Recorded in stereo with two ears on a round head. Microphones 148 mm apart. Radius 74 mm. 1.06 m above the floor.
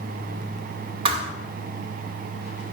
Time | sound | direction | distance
1.1 | a thud | 35° right (ahead or behind) | 1.5 m